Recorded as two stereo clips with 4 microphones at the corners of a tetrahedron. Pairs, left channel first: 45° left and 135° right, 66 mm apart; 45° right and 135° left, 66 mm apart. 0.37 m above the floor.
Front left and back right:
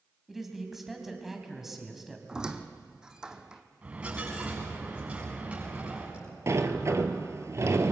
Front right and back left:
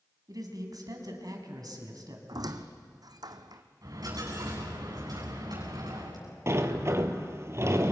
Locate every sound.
0.3 s a man speaking: 140° left, 3.5 m
2.3 s a squeak: 145° left, 1.3 m
3.8 s a dropped coin: 155° left, 8.5 m
6.5 s a sliding door: straight behind, 1.4 m